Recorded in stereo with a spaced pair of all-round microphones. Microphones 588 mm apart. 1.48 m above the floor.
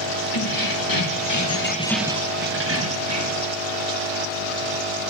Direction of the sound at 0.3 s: 35° left (ahead or behind).